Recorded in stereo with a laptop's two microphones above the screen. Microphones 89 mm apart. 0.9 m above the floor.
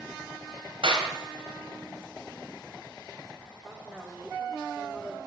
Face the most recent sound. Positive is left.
turn(degrees=-5)  # may be behind; listen again after turning